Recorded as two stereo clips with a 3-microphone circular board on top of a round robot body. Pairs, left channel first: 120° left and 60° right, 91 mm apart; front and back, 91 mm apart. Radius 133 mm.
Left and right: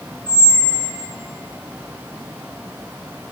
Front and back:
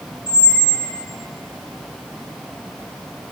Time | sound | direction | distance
0.3 | a squeak | 100° right | 1.2 m